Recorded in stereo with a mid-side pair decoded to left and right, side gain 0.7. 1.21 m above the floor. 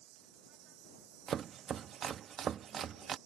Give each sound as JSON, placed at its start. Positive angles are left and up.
{"t": 0.0, "sound": "an insect", "azimuth_deg": -60}
{"t": 1.3, "sound": "chopping", "azimuth_deg": -40}